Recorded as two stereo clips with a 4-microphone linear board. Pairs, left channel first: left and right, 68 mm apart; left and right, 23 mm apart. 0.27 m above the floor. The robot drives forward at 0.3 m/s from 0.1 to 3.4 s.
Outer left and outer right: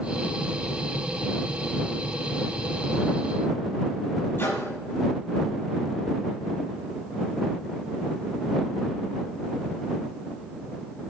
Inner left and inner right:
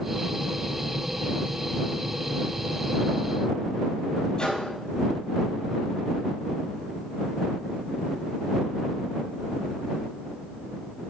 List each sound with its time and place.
4.4 s a microwave: 35° left (ahead or behind), 6.5 m